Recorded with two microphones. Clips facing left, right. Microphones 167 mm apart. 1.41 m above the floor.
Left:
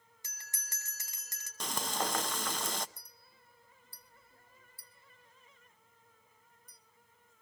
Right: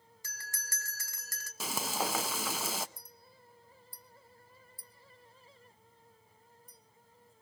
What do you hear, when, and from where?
0.2 s a bell: 20° left (ahead or behind), 2 m
1.6 s frying: 5° right (ahead or behind), 0.7 m
3.0 s a clink: 65° left (ahead or behind), 1.5 m